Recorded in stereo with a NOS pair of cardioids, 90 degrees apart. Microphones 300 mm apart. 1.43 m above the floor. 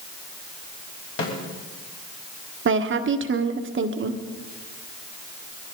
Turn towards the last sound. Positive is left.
turn(degrees=-40)